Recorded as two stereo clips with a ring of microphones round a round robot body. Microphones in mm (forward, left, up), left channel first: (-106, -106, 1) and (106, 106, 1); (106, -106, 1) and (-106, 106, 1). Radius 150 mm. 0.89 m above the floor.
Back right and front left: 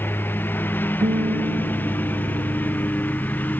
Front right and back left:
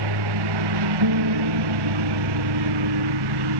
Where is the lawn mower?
140° left.